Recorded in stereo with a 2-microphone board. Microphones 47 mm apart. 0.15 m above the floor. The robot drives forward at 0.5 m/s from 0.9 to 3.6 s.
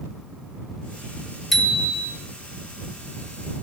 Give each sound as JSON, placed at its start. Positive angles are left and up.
{"t": 1.5, "sound": "a bicycle bell", "side_deg": -5, "distance_m": 2.5}